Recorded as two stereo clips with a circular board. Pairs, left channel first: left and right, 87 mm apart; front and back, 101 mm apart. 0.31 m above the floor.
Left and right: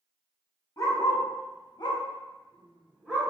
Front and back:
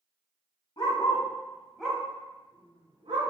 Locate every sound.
0.8 s a dog barking: 40° left, 1.1 m; by 3.3 s 170° left, 1.3 m